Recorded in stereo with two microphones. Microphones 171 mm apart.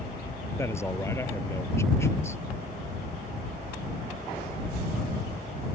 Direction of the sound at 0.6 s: 15° left (ahead or behind).